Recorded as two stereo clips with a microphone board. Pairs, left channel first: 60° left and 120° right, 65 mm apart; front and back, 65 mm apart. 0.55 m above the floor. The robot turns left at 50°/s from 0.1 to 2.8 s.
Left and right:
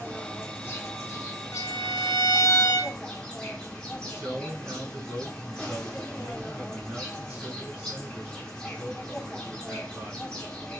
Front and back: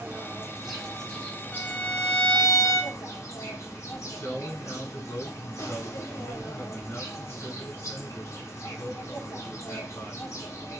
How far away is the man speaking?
About 3.5 m.